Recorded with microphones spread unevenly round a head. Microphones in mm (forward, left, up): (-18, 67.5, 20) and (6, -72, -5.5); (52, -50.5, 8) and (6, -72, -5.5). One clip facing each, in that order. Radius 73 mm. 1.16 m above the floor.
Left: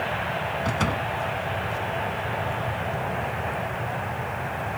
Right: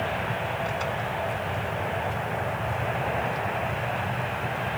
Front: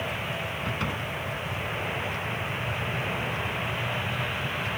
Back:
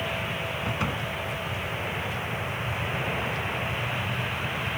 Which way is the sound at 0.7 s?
115° left.